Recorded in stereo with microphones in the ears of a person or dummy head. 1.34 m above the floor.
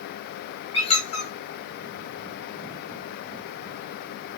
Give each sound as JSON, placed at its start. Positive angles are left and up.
{"t": 0.7, "sound": "a squeak", "side_deg": 35, "distance_m": 1.3}